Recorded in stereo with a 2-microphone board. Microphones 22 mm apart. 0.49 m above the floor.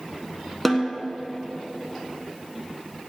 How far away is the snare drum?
About 1.4 m.